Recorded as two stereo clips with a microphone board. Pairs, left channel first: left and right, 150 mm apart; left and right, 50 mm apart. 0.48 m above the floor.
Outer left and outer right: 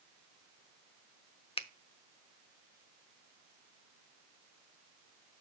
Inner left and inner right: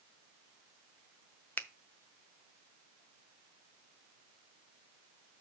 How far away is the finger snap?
About 0.6 m.